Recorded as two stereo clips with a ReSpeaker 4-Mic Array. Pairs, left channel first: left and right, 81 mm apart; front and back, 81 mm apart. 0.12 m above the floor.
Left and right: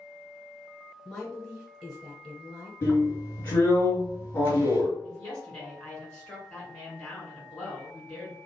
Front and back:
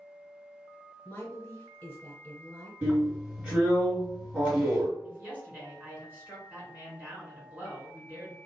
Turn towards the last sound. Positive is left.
turn(degrees=155)